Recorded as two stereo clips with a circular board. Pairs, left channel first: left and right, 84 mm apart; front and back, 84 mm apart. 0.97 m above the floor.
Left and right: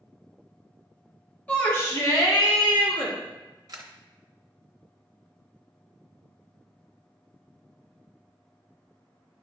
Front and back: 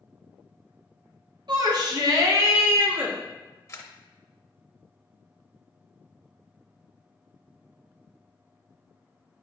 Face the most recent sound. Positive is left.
turn(degrees=-50)